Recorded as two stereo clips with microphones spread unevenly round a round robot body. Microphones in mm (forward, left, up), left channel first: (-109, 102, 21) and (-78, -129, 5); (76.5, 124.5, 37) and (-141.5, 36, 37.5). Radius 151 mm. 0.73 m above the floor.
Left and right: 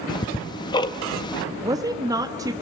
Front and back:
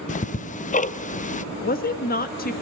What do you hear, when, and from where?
0.1 s ticking: 35° left, 0.6 m
1.6 s a woman speaking: 15° right, 1.2 m